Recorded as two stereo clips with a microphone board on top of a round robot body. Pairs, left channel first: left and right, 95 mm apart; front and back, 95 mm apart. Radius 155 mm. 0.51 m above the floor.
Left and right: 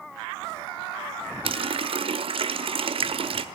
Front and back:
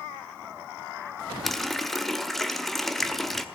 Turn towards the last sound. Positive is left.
turn(degrees=-90)